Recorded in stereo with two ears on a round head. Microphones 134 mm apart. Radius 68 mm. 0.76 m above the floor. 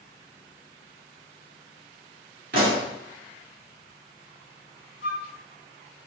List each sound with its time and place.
2.5 s a pop: 60° right (ahead or behind), 2.5 m
5.0 s a flute: 60° left (ahead or behind), 1.9 m